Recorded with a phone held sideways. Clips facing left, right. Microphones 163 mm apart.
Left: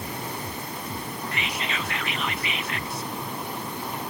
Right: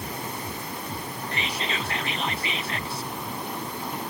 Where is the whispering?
30° right (ahead or behind), 0.6 m.